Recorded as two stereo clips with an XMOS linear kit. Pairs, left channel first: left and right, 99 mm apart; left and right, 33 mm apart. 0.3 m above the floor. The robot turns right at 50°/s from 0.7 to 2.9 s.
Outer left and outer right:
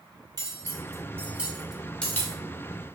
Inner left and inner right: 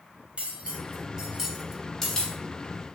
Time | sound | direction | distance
0.4 | cutlery clinking | 40° right (ahead or behind) | 0.7 m